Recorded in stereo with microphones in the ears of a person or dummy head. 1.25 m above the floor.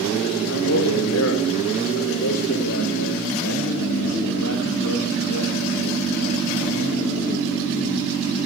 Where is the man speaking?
80° left, 4.5 m; by 6.4 s 85° left, 9.5 m.